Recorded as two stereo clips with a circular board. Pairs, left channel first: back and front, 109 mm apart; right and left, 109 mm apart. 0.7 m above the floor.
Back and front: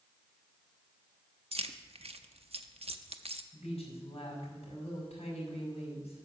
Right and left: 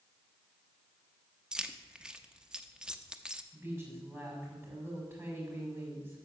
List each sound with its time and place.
1.5 s keys jangling: 10° left, 0.6 m
3.5 s a woman speaking: 155° left, 5.5 m